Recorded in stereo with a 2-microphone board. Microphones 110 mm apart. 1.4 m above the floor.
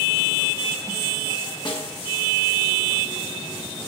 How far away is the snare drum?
About 1.2 m.